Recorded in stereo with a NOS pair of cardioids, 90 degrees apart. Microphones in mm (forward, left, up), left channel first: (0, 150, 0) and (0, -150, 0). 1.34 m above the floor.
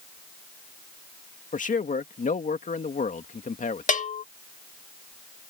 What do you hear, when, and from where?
1.5 s a man speaking: 25° left
3.9 s a bell: 25° left